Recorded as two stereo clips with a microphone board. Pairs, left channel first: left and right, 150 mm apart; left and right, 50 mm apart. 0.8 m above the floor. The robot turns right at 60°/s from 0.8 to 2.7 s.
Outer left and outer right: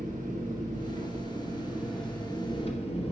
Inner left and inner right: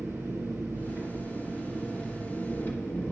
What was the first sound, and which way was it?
An engine running, 70° right.